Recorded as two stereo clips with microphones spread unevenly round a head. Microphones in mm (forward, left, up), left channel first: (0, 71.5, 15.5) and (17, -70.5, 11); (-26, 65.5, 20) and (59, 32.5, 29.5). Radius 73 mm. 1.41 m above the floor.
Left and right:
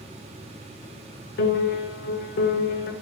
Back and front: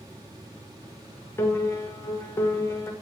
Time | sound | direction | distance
1.4 | a piano | 95° left | 0.6 m